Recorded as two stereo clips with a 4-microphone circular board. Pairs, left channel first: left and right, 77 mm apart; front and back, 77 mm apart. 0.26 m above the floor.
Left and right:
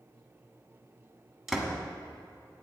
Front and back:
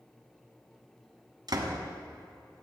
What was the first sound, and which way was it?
A door slam, 175° right.